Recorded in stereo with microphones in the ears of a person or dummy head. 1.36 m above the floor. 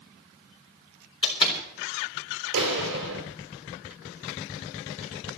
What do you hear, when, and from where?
1.2 s a door slam: 25° left (ahead or behind), 4 m
2.5 s a clap: 60° right (ahead or behind), 4.5 m